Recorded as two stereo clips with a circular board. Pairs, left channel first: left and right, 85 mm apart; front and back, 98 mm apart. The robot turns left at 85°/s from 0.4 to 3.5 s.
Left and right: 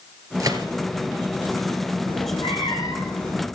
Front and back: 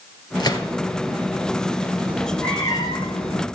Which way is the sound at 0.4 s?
40° right.